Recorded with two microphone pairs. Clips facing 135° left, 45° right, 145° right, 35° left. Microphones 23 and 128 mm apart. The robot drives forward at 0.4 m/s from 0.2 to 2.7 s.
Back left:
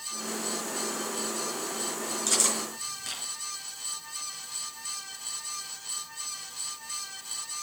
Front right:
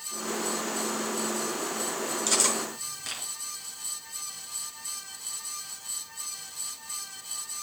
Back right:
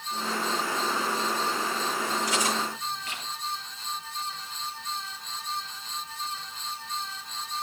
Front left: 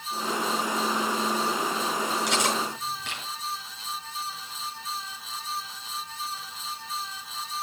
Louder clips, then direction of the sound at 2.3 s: Front right 1 dB, front left 1 dB; 35° left.